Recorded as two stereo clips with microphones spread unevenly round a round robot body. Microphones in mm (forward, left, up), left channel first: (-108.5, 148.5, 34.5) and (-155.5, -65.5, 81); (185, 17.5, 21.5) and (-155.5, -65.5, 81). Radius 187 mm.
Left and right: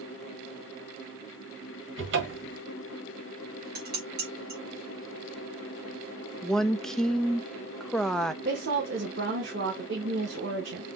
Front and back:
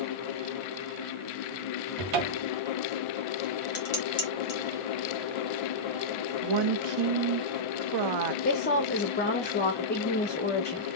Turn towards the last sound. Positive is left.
turn(degrees=-45)